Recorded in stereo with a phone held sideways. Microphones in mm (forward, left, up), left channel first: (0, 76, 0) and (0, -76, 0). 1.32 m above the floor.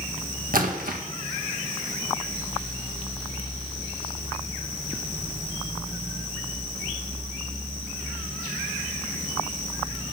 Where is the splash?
70° right (ahead or behind), 1.8 m.